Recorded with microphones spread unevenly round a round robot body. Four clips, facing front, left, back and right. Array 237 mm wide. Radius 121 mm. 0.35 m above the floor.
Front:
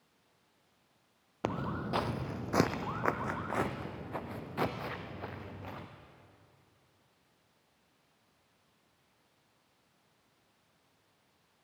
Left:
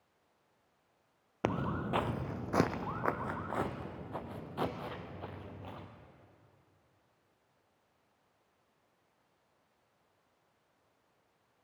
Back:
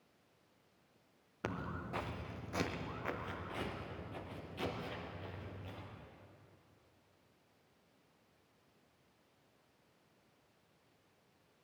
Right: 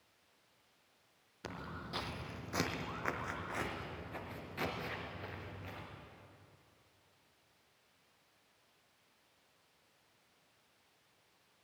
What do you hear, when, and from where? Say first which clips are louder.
1.4 s footsteps: left 12 dB, front 7 dB; 65° left, 0.5 m; by 5.9 s 20° left, 3 m